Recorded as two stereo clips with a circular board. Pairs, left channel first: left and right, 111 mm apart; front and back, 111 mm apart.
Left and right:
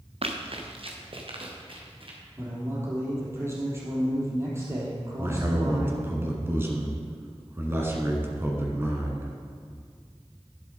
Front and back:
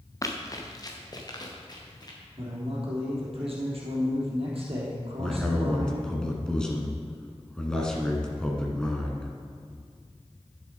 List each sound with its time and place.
0.2 s running footsteps: 60° right, 1.3 m; by 2.2 s 50° right, 3 m
2.4 s a man speaking: 155° right, 3.5 m
5.2 s a man speaking: 70° right, 1.5 m